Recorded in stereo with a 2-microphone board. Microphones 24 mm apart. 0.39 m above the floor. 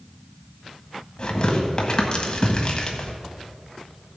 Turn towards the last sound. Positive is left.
turn(degrees=40)  # may be behind; listen again after turning